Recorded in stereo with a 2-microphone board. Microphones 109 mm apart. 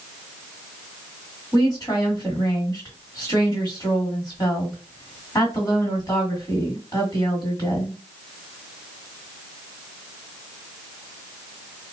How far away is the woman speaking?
About 1.9 m.